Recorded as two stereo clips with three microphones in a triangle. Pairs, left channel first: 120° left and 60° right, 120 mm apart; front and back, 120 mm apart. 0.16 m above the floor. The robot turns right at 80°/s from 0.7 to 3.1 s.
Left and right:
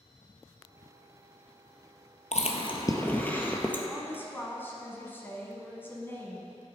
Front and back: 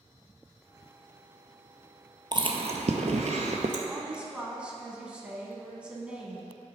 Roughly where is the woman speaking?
Behind left.